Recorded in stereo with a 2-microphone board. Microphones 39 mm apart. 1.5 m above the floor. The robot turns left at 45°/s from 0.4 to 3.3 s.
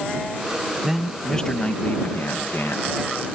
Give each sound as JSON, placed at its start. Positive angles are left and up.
{"t": 0.8, "sound": "a man speaking", "azimuth_deg": -170}